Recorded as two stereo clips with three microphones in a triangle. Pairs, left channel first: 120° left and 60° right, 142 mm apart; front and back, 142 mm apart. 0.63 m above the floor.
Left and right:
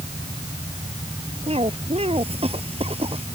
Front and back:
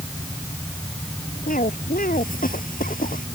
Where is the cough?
15° right.